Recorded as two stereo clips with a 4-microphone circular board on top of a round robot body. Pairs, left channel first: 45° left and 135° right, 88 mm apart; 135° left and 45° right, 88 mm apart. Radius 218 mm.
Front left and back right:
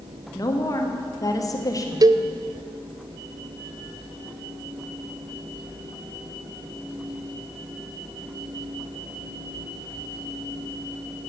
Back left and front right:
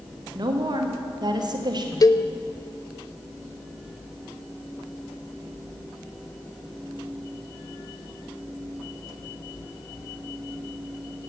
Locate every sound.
0.3 s a woman speaking: 5° right, 1.9 m
2.0 s a cowbell: straight behind, 0.6 m